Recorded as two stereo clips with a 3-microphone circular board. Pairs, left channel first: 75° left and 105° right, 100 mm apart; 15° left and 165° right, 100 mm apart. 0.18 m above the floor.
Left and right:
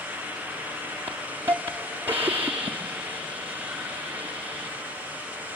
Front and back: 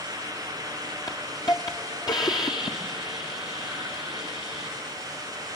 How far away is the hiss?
About 1.7 m.